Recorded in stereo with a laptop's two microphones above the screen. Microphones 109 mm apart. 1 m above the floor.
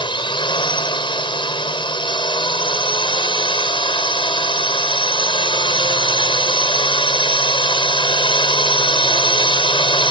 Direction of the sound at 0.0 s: 50° left (ahead or behind).